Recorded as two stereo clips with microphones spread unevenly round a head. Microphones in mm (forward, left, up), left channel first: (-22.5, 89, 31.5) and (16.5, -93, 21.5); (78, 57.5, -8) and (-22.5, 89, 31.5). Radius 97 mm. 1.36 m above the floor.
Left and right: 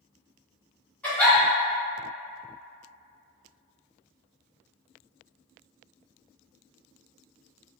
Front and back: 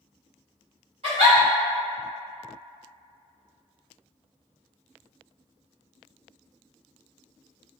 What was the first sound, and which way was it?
A giggle, 175° right.